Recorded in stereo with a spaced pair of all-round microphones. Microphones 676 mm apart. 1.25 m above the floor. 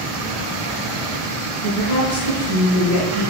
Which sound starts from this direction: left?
A woman speaking, at 1.6 s.